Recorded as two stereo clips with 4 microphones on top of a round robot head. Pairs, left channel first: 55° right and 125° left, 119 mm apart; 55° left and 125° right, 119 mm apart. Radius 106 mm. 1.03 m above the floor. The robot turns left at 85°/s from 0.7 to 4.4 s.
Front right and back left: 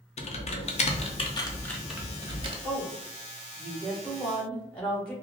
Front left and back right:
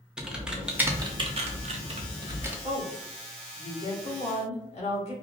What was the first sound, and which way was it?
Typing on a keyboard, 45° right.